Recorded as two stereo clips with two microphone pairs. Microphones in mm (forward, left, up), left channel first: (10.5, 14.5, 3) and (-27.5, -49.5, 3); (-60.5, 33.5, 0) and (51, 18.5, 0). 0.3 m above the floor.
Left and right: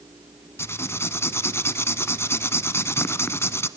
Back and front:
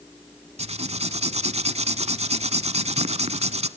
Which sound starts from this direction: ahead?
Writing, at 0.6 s.